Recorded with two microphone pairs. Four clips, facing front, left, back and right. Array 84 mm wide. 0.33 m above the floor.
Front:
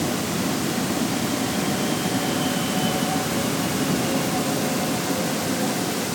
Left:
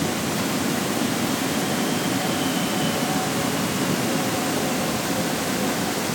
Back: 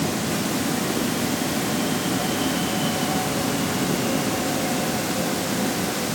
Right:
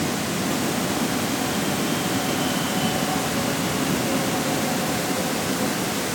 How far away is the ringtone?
I don't hear a ringtone.